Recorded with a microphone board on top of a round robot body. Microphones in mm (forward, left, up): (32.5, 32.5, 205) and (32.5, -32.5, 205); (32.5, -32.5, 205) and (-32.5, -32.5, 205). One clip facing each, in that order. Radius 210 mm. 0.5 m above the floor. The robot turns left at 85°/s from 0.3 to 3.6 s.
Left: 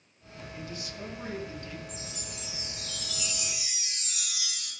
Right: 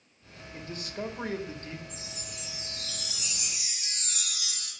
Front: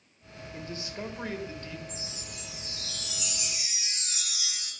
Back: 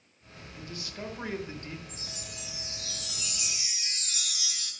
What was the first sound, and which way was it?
A man speaking, 35° right.